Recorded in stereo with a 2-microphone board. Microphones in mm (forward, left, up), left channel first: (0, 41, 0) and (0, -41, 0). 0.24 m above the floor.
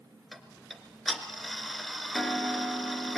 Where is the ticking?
Centre (ahead or behind), 1.6 m.